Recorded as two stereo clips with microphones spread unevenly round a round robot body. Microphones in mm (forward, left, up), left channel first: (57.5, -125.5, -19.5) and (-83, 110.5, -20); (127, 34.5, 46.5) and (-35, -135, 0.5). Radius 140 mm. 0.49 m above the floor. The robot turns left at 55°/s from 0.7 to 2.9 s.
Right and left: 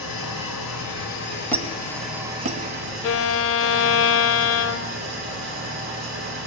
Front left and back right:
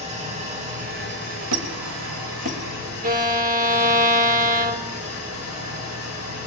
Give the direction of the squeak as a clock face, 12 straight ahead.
5 o'clock.